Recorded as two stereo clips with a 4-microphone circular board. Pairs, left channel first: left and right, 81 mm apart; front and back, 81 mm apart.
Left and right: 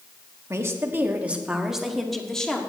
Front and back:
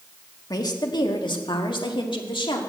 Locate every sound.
0.5 s a woman speaking: 40° right, 1.5 m; by 2.6 s 10° left, 1.9 m